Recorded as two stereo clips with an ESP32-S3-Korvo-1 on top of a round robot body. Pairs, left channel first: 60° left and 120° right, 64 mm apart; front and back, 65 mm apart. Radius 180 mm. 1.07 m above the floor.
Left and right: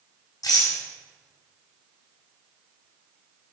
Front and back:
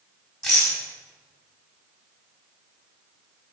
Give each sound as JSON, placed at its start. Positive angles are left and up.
{"t": 0.4, "sound": "a rattle", "azimuth_deg": 85, "distance_m": 6.5}